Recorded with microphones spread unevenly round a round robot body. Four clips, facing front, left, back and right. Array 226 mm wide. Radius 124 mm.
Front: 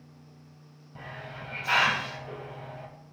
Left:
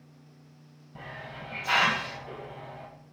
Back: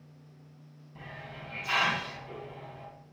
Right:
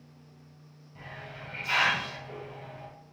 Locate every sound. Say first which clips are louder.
0.9 s a hiss: left 3 dB, front 3 dB; 40° left, 4 m